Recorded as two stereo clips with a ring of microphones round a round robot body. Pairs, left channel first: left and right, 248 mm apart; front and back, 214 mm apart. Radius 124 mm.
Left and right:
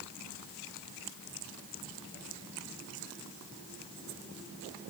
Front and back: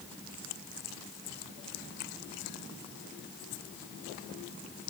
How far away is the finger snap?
I don't hear a finger snap.